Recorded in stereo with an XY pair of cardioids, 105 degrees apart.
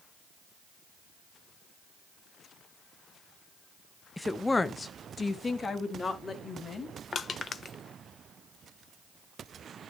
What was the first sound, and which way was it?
A woman speaking, 10° left.